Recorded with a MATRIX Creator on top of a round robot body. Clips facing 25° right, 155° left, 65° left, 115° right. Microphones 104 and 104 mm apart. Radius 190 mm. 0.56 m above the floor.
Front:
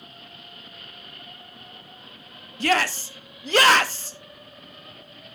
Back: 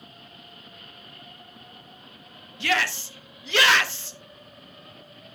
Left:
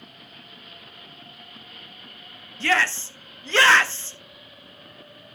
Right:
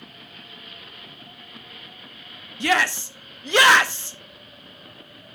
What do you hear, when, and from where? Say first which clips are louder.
2.6 s a shout: front 4 dB, right 2 dB; 45° right, 1.6 m